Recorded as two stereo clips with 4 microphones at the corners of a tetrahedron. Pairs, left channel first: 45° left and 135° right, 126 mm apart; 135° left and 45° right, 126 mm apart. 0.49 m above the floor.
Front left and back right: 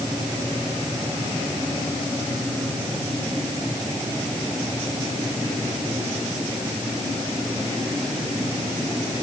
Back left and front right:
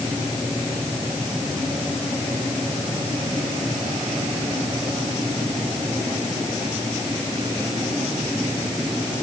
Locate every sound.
Only background noise.